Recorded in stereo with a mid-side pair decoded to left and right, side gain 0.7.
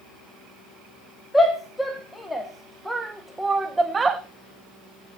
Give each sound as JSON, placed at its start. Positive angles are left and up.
{"t": 1.3, "sound": "a shout", "azimuth_deg": 10, "distance_m": 2.5}